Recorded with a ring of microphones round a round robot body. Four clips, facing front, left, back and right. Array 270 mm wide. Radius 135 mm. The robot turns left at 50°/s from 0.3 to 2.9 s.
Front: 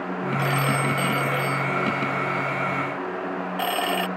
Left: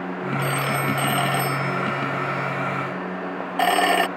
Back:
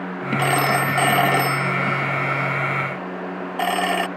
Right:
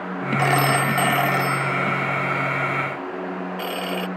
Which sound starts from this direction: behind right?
A phone ringing, at 0.4 s.